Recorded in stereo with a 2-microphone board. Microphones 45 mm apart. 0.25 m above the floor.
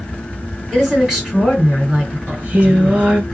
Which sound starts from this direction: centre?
A woman speaking, at 0.7 s.